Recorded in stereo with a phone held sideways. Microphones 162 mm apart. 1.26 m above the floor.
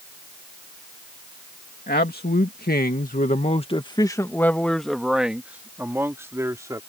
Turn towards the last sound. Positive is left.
turn(degrees=-20)  # may be behind; listen again after turning